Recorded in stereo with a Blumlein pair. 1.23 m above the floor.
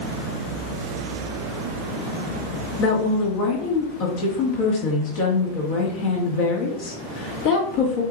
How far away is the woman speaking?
About 2 m.